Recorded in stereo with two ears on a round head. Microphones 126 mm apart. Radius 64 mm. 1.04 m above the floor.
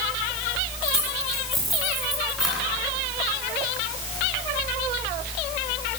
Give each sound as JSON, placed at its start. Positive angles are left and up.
{"t": 0.8, "sound": "keys jangling", "side_deg": 5, "distance_m": 7.5}